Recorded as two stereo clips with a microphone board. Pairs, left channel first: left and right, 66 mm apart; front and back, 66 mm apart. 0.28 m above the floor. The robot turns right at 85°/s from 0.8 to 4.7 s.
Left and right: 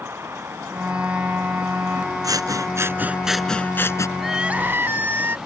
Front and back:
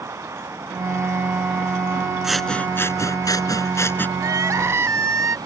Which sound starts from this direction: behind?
Crying, at 4.2 s.